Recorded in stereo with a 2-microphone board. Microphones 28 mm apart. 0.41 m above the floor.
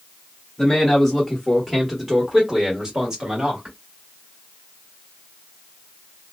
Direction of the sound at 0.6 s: 10° left (ahead or behind).